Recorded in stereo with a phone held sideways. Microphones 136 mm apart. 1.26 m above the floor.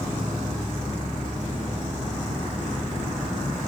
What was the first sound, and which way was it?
An insect, 60° left (ahead or behind).